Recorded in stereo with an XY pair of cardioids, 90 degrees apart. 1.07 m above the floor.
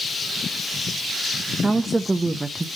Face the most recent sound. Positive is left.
turn(degrees=-15)